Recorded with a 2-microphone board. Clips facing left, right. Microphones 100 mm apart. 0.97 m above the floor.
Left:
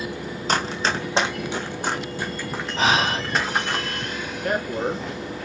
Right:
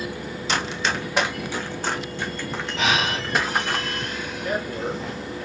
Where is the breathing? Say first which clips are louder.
Left 3 dB; 40° left (ahead or behind), 1.6 m.